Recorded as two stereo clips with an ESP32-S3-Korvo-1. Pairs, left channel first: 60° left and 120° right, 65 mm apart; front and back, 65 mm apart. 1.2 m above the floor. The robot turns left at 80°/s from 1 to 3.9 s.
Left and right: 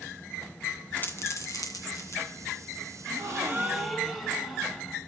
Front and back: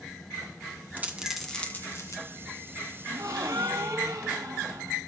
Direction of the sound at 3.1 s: 145° right.